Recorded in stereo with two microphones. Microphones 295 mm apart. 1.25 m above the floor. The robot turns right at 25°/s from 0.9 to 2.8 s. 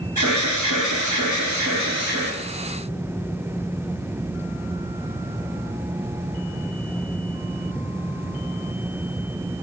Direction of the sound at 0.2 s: 90° right.